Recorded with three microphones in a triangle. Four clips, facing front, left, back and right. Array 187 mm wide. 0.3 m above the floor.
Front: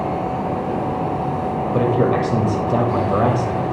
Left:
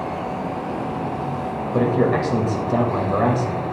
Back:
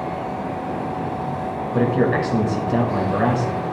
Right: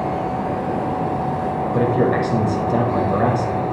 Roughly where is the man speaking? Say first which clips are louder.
Even, front 1 dB; ahead.